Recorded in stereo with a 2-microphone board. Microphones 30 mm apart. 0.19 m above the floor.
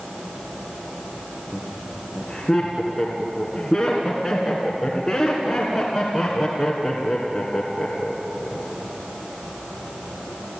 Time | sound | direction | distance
1.5 | laughter | 15° left (ahead or behind) | 3 m